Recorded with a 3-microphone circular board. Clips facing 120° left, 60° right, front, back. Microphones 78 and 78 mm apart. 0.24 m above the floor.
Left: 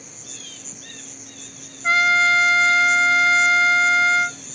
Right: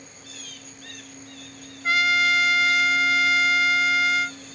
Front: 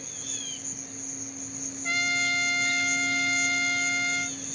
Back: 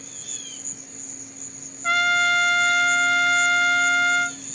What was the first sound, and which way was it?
An insect, 115° left.